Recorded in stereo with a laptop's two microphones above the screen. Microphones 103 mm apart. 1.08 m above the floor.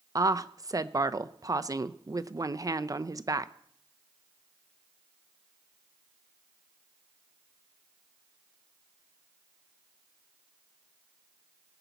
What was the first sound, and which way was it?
A woman speaking, 35° right (ahead or behind).